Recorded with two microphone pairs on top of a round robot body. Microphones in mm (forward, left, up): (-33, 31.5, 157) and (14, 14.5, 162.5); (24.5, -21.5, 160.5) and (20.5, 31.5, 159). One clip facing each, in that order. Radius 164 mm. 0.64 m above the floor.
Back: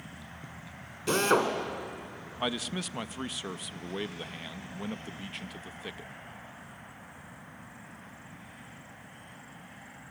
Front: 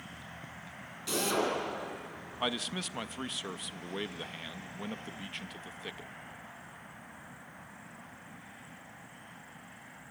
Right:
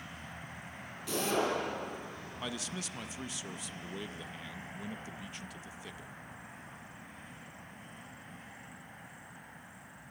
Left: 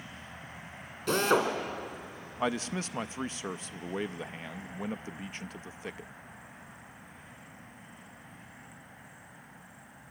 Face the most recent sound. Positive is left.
turn(degrees=80)